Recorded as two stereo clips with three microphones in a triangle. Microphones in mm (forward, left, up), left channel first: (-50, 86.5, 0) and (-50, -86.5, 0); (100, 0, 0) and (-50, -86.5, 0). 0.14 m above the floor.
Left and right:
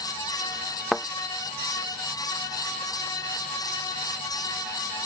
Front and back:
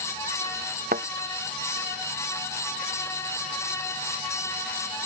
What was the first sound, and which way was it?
A thud, straight behind.